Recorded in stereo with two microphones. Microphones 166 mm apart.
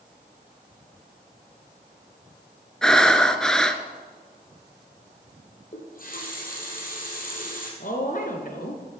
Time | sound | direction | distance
2.8 | breathing | 5° left (ahead or behind) | 0.7 m
5.7 | a running tap | 55° left (ahead or behind) | 2.5 m
7.8 | a woman speaking | 55° left (ahead or behind) | 1.8 m